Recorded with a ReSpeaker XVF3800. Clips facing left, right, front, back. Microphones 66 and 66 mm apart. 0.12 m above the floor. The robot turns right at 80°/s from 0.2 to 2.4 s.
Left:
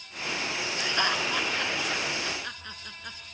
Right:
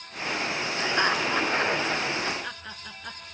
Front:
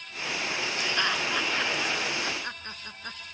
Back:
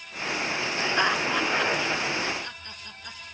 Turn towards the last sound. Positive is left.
turn(degrees=-15)